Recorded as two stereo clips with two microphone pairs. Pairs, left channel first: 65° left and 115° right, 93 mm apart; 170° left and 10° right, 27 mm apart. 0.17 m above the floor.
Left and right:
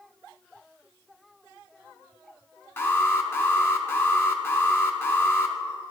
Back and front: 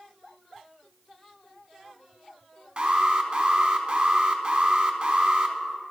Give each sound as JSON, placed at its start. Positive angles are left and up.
{"t": 2.8, "sound": "an alarm", "azimuth_deg": 20, "distance_m": 0.9}